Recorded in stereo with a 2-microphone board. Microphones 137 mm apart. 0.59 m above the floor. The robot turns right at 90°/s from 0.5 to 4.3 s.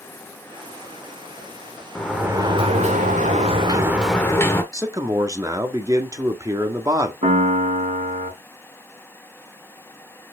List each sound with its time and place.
1.9 s a sliding door: 170° left, 1.6 m; by 4.6 s 20° left, 1.6 m
4.7 s a man speaking: 25° right (ahead or behind), 1.4 m
7.2 s a piano: 55° right (ahead or behind), 2 m